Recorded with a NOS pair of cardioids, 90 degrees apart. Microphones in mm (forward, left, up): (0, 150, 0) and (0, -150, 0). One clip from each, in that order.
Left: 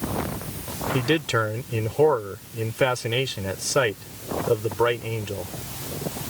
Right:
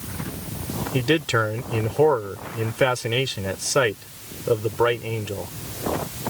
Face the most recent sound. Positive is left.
turn(degrees=-10)